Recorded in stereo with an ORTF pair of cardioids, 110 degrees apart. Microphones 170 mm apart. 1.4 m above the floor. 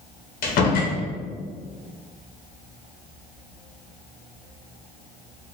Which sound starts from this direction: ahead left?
A door slam, at 0.4 s.